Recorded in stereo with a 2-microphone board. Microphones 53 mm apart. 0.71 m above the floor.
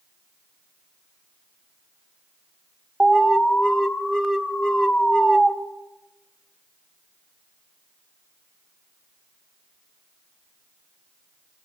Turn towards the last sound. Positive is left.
turn(degrees=10)  # may be behind; listen again after turning